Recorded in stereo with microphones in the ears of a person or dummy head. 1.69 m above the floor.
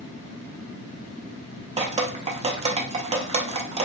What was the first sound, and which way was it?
Dripping, 35° right (ahead or behind).